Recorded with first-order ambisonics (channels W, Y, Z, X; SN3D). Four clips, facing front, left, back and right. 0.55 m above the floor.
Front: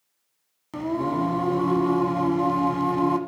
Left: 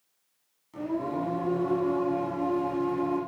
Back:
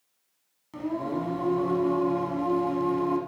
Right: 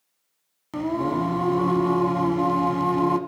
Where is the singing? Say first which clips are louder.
Right 6 dB, front 5 dB; 60° right, 1.1 m.